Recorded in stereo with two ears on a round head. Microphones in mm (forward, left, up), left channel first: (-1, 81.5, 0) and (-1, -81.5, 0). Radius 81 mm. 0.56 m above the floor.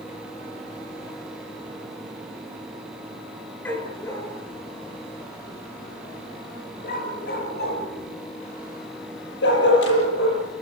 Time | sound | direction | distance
3.6 | a dog barking | 10° left (ahead or behind) | 4.5 m